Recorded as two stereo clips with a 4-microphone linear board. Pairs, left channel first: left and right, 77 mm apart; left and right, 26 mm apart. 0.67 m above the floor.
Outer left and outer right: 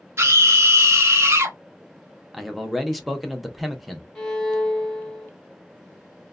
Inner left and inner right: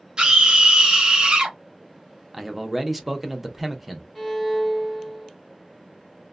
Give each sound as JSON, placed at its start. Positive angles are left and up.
{"t": 0.2, "sound": "a scream", "side_deg": -35, "distance_m": 0.7}
{"t": 2.3, "sound": "a man speaking", "side_deg": 0, "distance_m": 0.5}
{"t": 4.2, "sound": "a violin", "side_deg": 5, "distance_m": 0.8}